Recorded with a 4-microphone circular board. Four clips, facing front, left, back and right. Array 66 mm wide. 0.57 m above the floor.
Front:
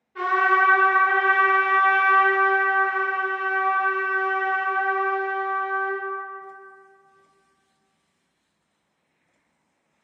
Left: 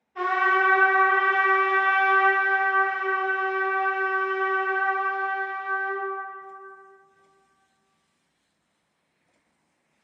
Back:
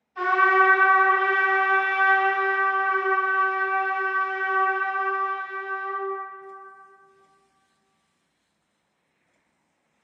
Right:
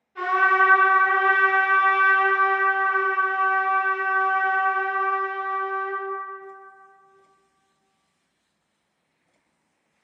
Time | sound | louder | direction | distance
0.1 | a trumpet | right 3 dB, back 1 dB | 5° right | 2.0 m